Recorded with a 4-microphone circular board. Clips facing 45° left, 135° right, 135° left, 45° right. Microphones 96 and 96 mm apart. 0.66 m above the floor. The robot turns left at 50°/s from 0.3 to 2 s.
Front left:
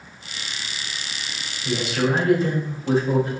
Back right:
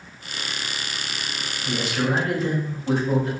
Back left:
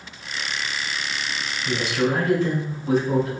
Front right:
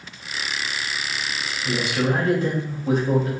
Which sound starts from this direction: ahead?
A man speaking, at 1.6 s.